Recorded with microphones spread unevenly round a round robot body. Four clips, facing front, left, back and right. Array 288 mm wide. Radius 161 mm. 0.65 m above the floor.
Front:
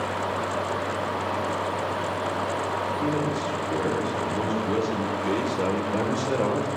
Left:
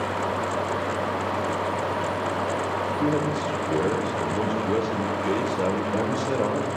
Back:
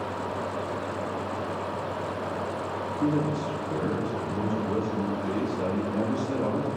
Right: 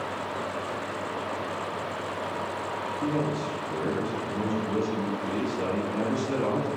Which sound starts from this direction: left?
A man speaking, at 3.0 s.